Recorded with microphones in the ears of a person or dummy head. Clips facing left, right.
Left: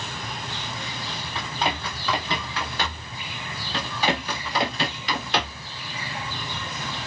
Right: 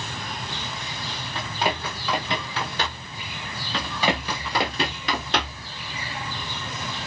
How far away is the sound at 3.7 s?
About 1.8 m.